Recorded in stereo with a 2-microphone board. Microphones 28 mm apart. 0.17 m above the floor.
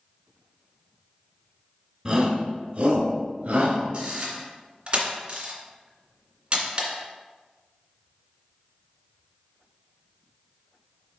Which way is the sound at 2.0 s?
15° right (ahead or behind).